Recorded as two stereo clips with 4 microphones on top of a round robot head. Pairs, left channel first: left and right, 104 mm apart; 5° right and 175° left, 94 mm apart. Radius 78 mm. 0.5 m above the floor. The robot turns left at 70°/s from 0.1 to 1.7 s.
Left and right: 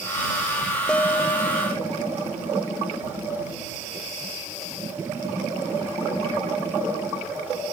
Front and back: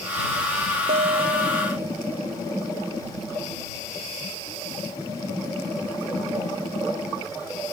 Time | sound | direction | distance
0.9 | a guitar | 170° left | ?